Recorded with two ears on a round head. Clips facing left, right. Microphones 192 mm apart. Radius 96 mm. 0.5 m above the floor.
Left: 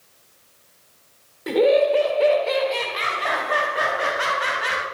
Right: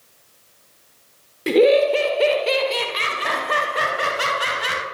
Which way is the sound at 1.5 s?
35° right (ahead or behind).